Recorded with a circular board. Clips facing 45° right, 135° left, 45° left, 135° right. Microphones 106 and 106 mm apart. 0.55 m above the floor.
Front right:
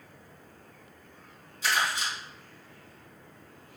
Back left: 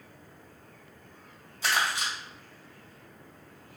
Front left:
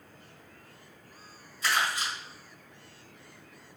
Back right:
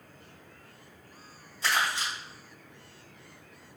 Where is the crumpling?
165° left, 1.8 m.